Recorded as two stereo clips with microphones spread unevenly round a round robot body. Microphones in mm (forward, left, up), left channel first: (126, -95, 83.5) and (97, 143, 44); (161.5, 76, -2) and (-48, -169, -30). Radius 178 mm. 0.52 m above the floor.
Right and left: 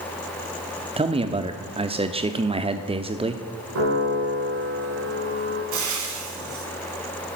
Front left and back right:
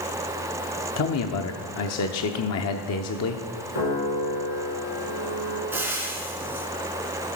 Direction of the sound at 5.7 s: 145° left.